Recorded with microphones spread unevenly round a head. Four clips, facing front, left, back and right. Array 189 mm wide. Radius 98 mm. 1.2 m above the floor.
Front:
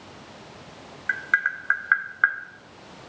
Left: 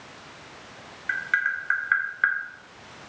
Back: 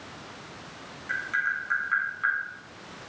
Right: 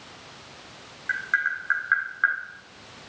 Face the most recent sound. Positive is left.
turn(degrees=10)